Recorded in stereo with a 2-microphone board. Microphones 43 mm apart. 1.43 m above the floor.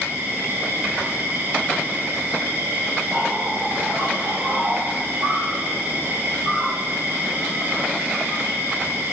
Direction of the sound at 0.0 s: 60° right (ahead or behind).